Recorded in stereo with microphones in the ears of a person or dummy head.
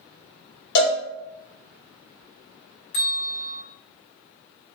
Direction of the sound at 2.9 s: 50° left (ahead or behind).